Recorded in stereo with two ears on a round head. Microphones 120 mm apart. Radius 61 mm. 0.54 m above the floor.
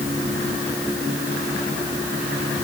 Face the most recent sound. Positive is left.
No sound to turn to.